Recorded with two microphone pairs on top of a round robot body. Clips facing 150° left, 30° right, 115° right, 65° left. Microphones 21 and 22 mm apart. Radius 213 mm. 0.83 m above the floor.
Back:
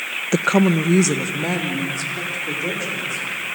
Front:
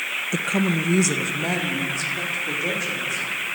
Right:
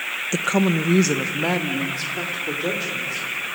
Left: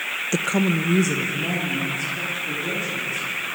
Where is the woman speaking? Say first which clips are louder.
Back 7 dB, right 2 dB; 160° left, 0.8 m; by 3.5 s 115° right, 4.5 m.